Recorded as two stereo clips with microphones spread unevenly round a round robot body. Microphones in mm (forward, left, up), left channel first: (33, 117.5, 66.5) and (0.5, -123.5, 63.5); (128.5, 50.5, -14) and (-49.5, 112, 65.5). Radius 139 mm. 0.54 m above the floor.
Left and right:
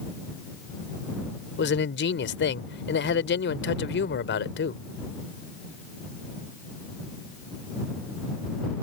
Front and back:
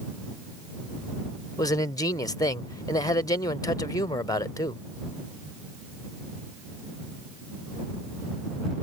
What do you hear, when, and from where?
1.6 s a man speaking: 40° left